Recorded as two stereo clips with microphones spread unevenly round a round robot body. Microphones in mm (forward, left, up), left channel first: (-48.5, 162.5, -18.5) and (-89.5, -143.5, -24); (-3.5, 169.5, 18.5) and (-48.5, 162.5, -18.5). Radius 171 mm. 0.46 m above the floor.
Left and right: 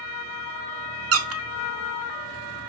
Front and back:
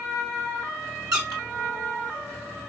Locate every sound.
1.1 s a squeak: 140° right, 0.7 m